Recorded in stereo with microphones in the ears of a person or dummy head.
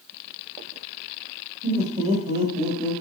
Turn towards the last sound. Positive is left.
turn(degrees=-40)  # may be behind; listen again after turning